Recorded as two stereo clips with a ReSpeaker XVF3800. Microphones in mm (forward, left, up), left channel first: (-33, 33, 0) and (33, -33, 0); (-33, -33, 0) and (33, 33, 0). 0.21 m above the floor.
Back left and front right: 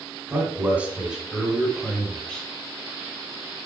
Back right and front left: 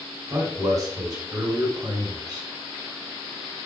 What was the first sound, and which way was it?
A man speaking, 10° left.